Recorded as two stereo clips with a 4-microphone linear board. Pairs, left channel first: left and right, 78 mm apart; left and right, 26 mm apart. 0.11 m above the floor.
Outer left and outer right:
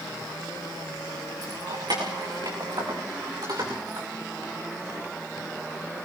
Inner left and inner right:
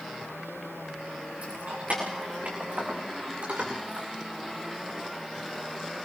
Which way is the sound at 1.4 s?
70° right (ahead or behind).